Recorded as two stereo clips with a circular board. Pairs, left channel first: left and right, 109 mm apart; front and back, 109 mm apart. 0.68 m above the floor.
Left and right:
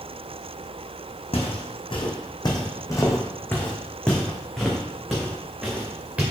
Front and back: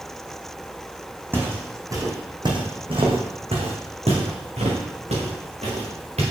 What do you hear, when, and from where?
1.3 s footsteps: 110° left, 1.7 m; by 6.2 s 170° right, 3 m